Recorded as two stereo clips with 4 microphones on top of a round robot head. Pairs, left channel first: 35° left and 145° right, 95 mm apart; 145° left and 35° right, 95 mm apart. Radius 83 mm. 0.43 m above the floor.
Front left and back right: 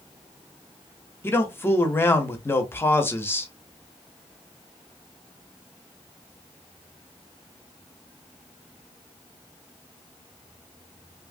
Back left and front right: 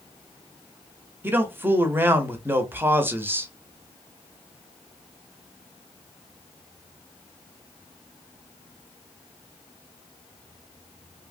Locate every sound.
1.2 s a man speaking: straight ahead, 0.8 m